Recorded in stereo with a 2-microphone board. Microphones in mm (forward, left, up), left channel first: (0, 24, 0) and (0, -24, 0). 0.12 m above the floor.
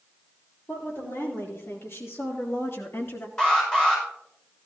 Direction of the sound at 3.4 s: 15° left (ahead or behind).